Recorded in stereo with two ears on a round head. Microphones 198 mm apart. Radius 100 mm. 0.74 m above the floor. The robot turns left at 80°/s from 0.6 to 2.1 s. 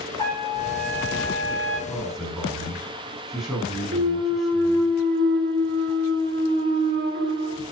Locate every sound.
0.2 s a trumpet: 155° left, 7 m; by 1.8 s 60° left, 7 m
1.9 s a man speaking: 15° left (ahead or behind), 6 m; by 4.9 s centre (ahead or behind), 6 m
3.9 s a clunk: 45° right (ahead or behind), 2.5 m